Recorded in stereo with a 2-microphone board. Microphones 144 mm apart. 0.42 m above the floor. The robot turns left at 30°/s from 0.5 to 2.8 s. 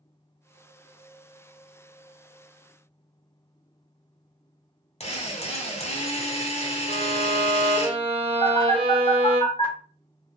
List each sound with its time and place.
5.0 s a drill: 50° left (ahead or behind), 0.9 m
6.9 s a violin: 35° right (ahead or behind), 0.8 m
8.4 s a phone buzzing: 40° left (ahead or behind), 1.6 m